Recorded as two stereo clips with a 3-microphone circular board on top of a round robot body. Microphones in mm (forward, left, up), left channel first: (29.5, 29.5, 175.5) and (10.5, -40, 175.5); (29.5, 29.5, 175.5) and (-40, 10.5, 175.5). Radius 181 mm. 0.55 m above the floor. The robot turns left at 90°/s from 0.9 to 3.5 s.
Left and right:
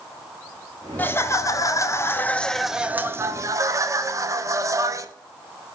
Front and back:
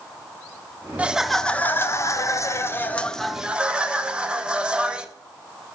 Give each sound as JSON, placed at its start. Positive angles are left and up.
{"t": 1.0, "sound": "laughter", "azimuth_deg": 130, "distance_m": 1.0}